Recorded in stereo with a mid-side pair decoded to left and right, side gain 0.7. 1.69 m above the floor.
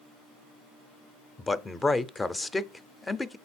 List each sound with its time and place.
1.4 s a man speaking: 15° left, 0.6 m